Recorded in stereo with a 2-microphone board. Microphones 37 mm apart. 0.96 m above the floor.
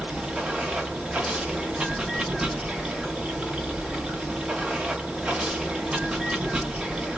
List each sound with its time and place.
0.0 s running water: 25° right (ahead or behind), 0.7 m